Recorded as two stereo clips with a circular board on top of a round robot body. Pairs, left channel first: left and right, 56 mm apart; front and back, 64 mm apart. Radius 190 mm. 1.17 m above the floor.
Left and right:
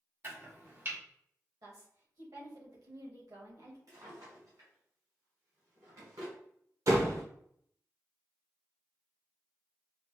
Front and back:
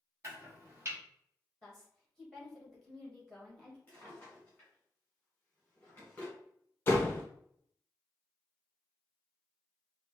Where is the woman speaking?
90° right, 2.5 m.